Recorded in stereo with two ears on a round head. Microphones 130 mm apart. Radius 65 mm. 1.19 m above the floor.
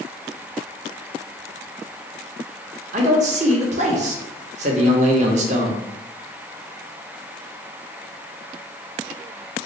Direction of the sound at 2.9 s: 50° right (ahead or behind).